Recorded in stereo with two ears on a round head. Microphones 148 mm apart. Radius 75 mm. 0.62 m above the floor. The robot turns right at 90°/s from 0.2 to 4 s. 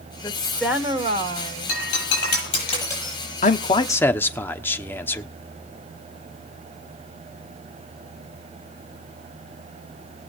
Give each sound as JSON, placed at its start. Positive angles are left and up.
{"t": 0.2, "sound": "a woman speaking", "azimuth_deg": 155, "distance_m": 2.5}
{"t": 1.7, "sound": "breaking glass", "side_deg": 50, "distance_m": 9.0}
{"t": 3.4, "sound": "a man speaking", "azimuth_deg": 110, "distance_m": 1.1}